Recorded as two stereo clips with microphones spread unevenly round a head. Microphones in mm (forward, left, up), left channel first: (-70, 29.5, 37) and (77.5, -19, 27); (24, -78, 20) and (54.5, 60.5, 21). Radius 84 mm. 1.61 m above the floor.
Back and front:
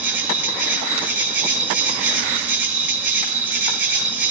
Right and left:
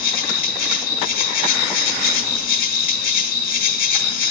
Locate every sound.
0.0 s an insect: 95° right, 1.4 m